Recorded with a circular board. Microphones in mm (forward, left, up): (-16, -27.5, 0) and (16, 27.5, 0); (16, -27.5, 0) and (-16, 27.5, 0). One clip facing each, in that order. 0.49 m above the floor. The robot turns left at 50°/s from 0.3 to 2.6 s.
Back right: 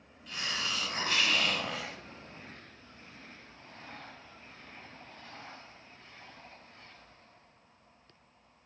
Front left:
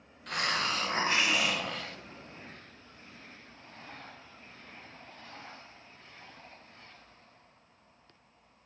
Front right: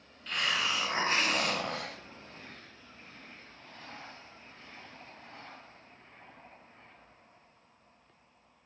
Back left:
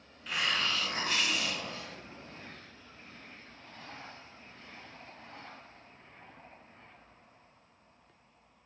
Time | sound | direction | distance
0.3 | a hiss | 35° left | 0.5 m